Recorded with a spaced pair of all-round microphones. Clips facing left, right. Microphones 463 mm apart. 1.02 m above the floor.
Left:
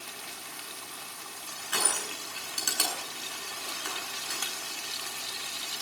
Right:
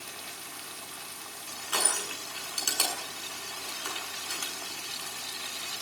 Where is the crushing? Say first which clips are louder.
Even; 35° left (ahead or behind), 8.5 m.